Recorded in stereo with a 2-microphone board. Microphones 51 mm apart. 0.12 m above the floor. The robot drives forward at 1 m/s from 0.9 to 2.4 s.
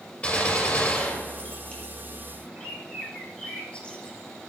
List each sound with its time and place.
0.2 s a gunshot: 20° left (ahead or behind), 5.5 m
2.5 s a bird: 20° left (ahead or behind), 3 m